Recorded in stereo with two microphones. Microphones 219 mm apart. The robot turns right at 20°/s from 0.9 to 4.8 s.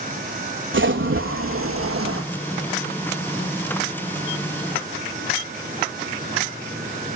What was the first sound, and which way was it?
A splash, 65° right (ahead or behind).